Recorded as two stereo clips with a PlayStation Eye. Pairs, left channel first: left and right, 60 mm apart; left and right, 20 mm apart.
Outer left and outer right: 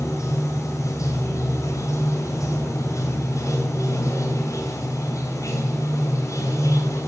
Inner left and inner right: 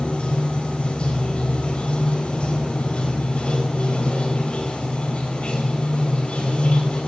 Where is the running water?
60° left (ahead or behind), 3.5 m.